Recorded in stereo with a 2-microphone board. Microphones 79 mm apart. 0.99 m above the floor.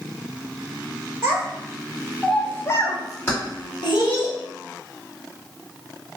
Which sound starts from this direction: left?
Keys jangling, at 3.3 s.